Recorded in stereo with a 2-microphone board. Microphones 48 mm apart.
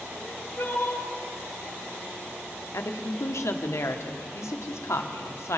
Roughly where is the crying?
Left.